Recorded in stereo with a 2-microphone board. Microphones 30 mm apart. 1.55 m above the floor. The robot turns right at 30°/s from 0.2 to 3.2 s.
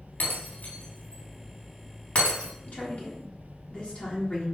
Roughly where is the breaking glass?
Left.